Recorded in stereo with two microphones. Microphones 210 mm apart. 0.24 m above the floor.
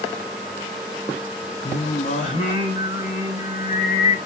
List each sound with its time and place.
1.6 s singing: 35° left (ahead or behind), 2.5 m